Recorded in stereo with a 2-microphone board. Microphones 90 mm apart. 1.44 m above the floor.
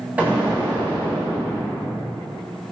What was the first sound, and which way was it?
An explosion, 15° right (ahead or behind).